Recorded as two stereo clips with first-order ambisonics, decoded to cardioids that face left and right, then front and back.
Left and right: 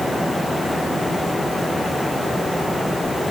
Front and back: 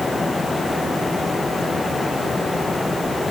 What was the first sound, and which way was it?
Only background noise.